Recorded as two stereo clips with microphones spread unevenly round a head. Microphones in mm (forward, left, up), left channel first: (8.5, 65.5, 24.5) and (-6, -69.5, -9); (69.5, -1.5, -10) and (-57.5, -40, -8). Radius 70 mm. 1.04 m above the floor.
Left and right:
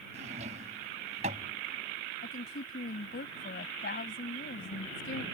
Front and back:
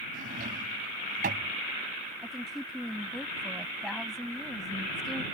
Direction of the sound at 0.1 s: 145° right.